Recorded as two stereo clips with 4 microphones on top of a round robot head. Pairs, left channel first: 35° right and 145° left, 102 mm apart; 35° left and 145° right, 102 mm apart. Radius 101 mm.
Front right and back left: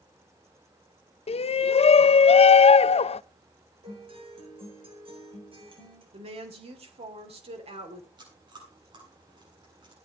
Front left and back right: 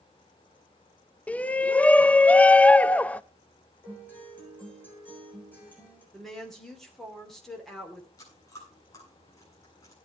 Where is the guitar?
110° left, 8 m.